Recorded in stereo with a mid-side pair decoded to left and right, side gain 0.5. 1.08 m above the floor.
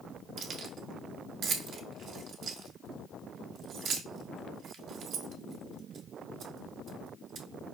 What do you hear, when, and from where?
0.4 s keys jangling: 60° right, 0.8 m